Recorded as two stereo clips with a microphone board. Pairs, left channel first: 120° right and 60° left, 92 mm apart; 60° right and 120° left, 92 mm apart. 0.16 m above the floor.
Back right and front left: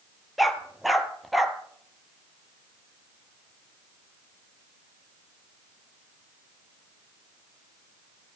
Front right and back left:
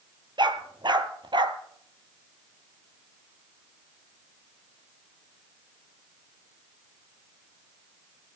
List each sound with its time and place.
0.4 s a dog barking: 150° left, 1.2 m